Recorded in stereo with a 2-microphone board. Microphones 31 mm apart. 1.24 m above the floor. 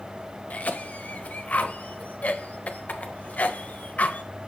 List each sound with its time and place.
0.5 s a cough: 50° left (ahead or behind), 1.0 m